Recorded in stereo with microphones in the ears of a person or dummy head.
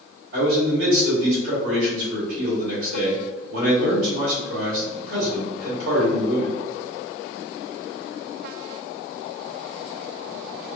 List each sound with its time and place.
0.3 s a man speaking: 75° right (ahead or behind), 1.9 m